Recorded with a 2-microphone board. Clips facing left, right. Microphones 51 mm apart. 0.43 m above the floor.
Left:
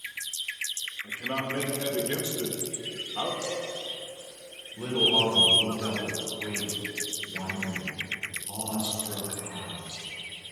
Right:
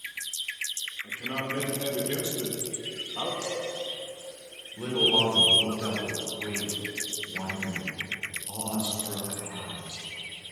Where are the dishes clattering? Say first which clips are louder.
Even; 30° right (ahead or behind), 2.0 m.